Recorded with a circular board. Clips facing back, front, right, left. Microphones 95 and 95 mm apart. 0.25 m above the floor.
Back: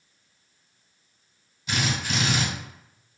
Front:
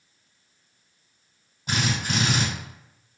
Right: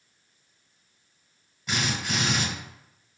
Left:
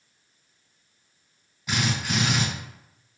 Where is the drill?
5° left, 2.0 m.